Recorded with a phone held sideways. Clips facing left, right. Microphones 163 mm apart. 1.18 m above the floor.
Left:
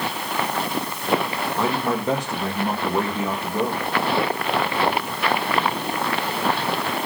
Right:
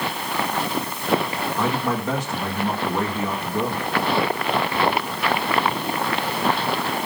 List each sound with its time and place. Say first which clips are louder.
1.6 s a man speaking: left 1 dB; 25° left (ahead or behind), 1.7 m